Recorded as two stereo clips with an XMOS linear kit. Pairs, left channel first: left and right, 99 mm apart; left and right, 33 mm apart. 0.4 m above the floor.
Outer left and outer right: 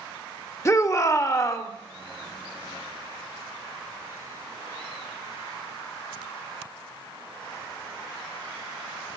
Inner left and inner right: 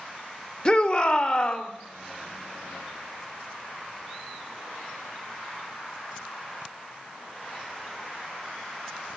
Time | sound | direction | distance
0.7 | a shout | 30° left (ahead or behind) | 1.0 m